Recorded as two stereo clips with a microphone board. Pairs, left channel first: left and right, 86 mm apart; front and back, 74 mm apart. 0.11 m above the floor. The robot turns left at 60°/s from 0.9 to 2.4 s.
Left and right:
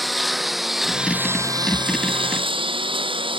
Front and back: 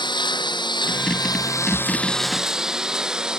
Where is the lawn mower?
Straight ahead; by 3.4 s 100° right.